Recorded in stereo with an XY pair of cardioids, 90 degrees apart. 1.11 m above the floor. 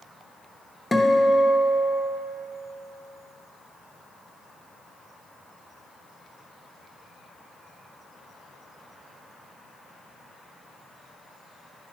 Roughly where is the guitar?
Ahead.